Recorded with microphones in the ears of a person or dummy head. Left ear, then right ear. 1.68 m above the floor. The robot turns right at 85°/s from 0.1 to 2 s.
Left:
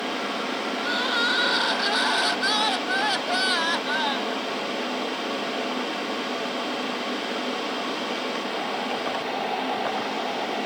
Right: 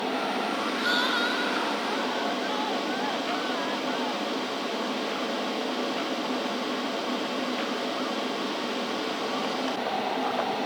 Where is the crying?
15° right; by 4.4 s 90° left.